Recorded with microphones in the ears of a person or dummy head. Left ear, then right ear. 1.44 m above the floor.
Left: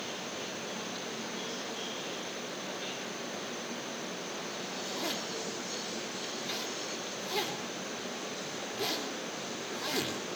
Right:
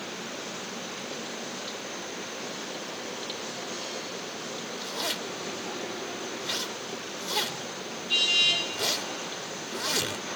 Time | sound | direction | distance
4.8 | a zipper | 5° right (ahead or behind) | 3.5 m